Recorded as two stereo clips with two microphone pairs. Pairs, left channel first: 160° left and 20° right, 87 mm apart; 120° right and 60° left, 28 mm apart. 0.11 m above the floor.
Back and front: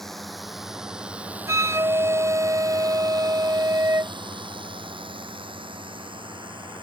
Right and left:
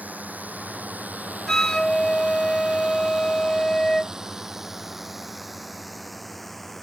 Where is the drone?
75° left; by 6.8 s 35° right.